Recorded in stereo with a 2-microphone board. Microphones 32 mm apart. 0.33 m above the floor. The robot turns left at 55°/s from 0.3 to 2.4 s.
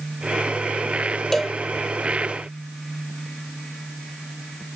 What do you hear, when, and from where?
1.3 s a cowbell: 10° left (ahead or behind); by 1.6 s 5° right (ahead or behind)